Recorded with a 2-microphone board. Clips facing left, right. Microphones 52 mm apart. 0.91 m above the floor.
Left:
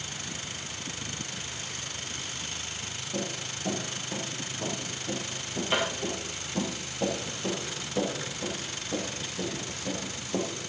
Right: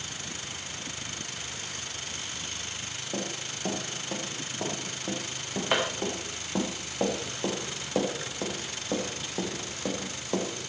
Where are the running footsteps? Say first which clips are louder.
Left 1 dB; 40° right (ahead or behind), 6.5 m; by 10.5 s 75° right (ahead or behind), 5 m.